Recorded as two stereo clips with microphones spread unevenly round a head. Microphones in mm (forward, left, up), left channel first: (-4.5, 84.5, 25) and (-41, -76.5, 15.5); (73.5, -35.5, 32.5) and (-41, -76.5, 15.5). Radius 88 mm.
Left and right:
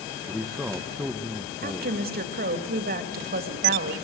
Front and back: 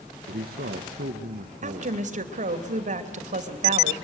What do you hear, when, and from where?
0.3 s a man speaking: 170° left, 1.2 m
1.6 s a woman speaking: 135° right, 2.5 m